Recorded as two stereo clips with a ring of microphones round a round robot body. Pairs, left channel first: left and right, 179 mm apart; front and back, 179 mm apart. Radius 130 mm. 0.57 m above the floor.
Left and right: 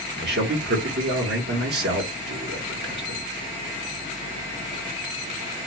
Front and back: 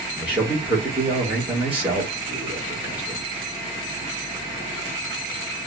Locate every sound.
0.2 s a man speaking: 100° right, 1.5 m